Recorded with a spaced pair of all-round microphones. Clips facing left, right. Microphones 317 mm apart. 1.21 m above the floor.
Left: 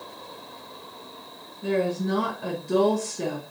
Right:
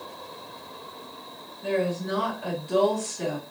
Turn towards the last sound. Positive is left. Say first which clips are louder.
# left 2 dB
turn(degrees=55)  # may be behind; listen again after turning